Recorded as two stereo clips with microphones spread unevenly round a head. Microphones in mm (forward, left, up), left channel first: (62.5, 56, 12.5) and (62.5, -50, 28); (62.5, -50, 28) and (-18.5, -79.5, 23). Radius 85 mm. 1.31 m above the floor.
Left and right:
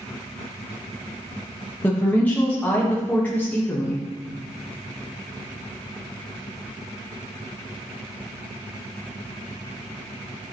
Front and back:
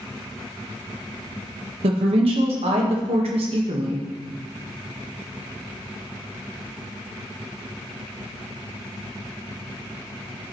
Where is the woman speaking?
170° left, 1.3 m.